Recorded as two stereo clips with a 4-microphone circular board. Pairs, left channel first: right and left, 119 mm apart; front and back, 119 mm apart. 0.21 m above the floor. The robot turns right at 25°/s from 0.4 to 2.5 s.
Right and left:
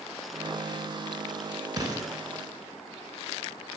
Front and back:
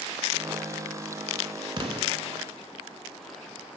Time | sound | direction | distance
1.8 | an explosion | 140° left | 1.0 m